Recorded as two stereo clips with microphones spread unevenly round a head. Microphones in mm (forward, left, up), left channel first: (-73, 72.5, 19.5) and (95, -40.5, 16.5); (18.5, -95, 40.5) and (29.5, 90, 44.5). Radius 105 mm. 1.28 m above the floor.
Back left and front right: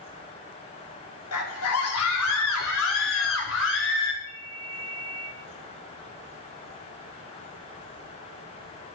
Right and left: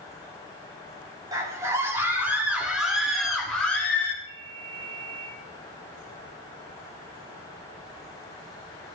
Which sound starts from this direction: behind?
A scream, at 1.3 s.